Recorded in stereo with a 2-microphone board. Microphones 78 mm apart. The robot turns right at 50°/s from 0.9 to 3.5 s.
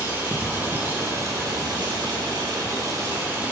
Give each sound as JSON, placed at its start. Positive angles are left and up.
{"t": 0.0, "sound": "running water", "azimuth_deg": -150, "distance_m": 3.5}